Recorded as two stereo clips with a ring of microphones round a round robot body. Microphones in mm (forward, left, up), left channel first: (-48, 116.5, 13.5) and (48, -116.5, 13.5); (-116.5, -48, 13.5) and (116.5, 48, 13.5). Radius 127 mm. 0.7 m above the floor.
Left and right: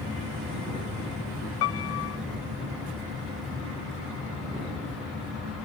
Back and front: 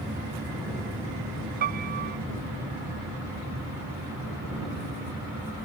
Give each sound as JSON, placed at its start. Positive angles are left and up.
{"t": 1.6, "sound": "a piano", "azimuth_deg": 80}